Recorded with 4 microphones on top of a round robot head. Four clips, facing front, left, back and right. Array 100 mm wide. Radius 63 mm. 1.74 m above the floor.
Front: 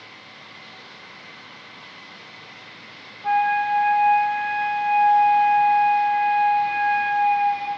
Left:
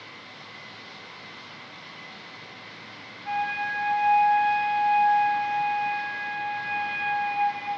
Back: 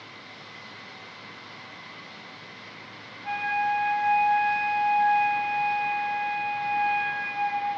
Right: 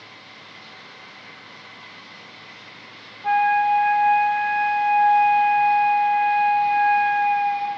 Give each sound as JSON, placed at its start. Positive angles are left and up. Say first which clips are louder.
{"t": 3.2, "sound": "a flute", "louder": "right 11 dB, front 7 dB", "azimuth_deg": -50, "distance_m": 3.0}